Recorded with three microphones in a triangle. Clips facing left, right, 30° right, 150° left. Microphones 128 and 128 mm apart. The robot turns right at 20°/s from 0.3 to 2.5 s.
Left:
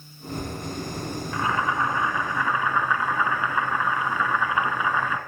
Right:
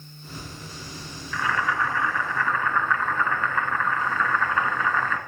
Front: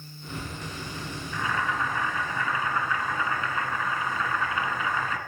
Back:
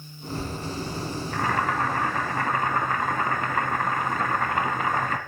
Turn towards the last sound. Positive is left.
turn(degrees=165)